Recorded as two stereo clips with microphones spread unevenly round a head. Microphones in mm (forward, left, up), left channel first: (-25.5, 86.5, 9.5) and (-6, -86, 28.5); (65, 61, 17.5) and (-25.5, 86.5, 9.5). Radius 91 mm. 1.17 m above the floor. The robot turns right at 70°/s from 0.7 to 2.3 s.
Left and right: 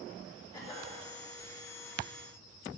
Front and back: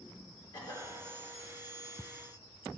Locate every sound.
0.5 s a cough: 25° left, 3 m; by 0.9 s 45° left, 3 m